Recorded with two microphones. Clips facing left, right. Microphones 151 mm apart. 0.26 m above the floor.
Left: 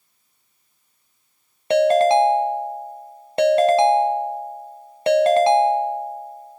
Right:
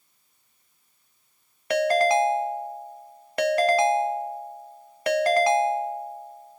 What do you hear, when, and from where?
1.7 s a ringtone: 25° left (ahead or behind), 0.6 m